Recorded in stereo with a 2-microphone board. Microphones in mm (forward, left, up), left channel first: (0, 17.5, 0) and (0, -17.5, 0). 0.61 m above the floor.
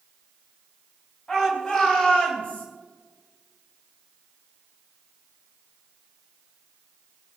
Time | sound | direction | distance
1.3 | a shout | 15° left (ahead or behind) | 4.5 m